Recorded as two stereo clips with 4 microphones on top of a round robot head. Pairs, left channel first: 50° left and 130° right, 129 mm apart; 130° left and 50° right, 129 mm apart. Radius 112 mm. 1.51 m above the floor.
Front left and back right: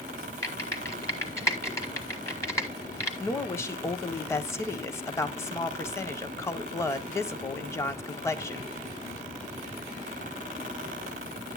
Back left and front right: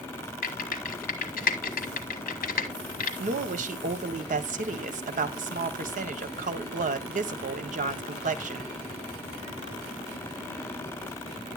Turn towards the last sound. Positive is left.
turn(degrees=-20)